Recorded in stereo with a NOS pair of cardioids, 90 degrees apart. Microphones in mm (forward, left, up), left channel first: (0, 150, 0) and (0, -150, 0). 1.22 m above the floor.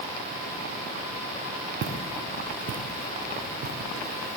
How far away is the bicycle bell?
No bicycle bell in this recording.